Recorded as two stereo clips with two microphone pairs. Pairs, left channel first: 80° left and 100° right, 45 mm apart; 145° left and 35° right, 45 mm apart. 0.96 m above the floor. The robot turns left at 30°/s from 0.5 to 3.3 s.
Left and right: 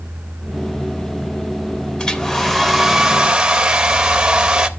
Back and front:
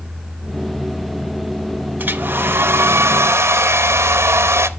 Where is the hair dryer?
15° left, 0.6 m; by 4.7 s 25° right, 0.6 m.